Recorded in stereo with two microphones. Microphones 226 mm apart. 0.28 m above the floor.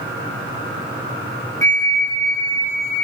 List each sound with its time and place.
1.6 s a flute: 35° right (ahead or behind), 0.8 m